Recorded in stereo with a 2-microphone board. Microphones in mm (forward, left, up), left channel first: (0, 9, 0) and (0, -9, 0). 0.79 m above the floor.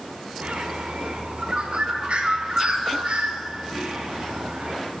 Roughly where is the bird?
Right.